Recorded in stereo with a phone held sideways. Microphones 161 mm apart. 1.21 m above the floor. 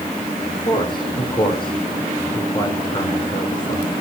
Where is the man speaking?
30° left (ahead or behind), 4.5 m.